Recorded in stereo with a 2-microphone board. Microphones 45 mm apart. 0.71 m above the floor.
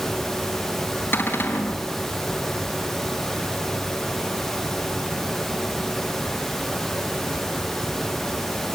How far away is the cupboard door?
About 4 m.